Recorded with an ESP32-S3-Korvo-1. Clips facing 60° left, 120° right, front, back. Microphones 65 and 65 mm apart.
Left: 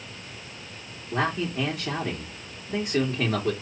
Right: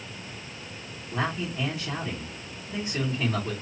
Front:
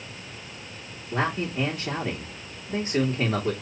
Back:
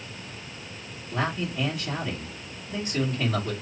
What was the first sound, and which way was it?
A man speaking, 35° left.